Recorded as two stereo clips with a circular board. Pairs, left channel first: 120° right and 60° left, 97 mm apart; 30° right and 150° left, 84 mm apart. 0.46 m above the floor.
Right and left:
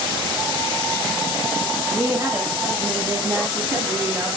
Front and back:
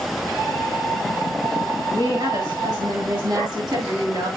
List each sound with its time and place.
1.9 s a woman speaking: 120° left, 4.5 m; by 4.3 s 125° left, 7 m